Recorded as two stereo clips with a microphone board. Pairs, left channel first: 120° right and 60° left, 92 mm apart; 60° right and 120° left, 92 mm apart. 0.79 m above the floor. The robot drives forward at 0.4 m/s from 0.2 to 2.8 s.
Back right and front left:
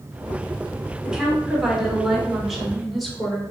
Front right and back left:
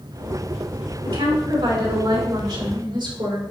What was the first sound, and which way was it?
A woman speaking, 145° left.